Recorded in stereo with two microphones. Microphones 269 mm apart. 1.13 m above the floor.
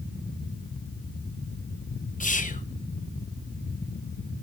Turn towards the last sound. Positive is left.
turn(degrees=25)  # may be behind; listen again after turning